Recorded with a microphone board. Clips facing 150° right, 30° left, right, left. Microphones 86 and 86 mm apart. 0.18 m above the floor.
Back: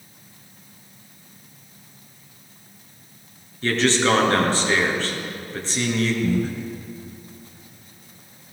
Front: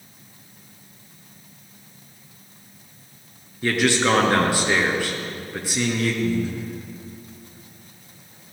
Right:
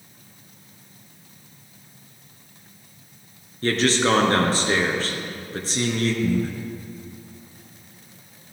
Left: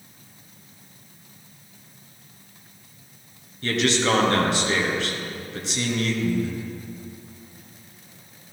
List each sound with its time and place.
3.6 s a man speaking: 45° right, 2.5 m
6.2 s breathing: 120° right, 1.5 m